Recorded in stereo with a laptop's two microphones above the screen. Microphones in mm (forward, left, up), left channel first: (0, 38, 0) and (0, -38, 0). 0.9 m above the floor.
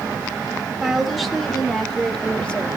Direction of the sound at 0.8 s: 5° right (ahead or behind).